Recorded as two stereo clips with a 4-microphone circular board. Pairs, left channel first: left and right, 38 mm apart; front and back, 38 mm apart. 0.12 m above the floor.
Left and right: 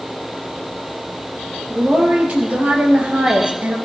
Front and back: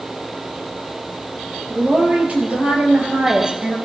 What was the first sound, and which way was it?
A woman speaking, 140° right.